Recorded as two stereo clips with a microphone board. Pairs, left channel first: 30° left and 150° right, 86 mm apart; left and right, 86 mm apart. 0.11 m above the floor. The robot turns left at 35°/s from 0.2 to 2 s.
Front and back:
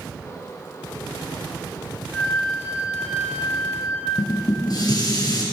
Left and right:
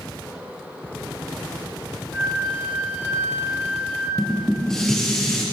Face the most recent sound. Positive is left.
turn(degrees=10)